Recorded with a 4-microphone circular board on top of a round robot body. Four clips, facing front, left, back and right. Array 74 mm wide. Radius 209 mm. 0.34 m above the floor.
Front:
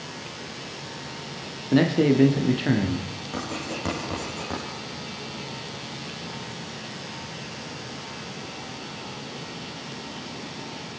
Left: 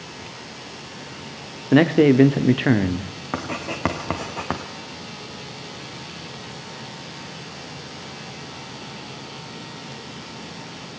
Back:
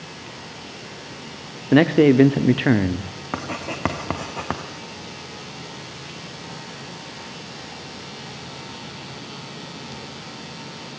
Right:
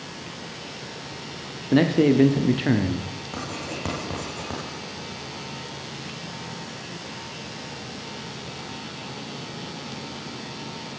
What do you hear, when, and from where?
1.7 s a man speaking: 140° left, 1.7 m
3.3 s writing: 135° left, 2.5 m